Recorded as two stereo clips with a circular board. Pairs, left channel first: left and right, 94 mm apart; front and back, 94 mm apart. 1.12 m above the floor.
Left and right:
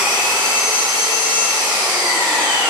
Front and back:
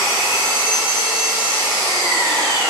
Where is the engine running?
130° right, 1.1 m.